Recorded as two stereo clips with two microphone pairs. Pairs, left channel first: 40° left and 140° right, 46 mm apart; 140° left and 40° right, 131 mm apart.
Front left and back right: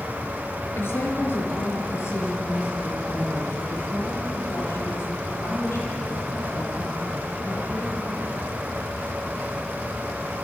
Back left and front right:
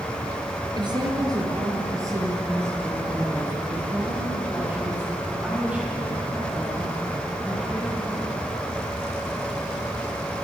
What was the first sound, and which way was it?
A woman speaking, 10° left.